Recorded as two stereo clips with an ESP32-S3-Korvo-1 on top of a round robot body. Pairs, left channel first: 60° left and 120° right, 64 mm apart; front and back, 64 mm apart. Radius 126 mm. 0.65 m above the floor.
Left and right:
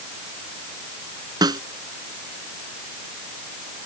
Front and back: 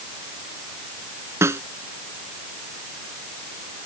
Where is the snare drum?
130° right.